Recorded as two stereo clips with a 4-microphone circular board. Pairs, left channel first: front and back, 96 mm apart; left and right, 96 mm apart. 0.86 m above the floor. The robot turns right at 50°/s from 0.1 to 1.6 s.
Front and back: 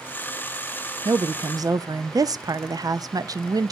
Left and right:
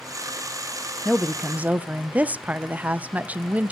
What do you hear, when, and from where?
1.1 s a woman speaking: 175° left, 0.5 m; by 3.7 s 155° right, 0.5 m